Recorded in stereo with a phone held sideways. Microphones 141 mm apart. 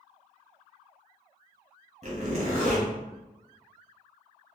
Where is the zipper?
50° right (ahead or behind), 1.4 m.